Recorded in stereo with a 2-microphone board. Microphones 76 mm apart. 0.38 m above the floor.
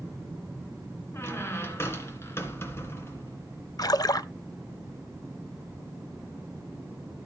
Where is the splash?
55° left (ahead or behind), 0.5 m.